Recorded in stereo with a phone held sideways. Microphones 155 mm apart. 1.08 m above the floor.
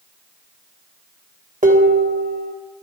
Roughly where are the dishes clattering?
Right.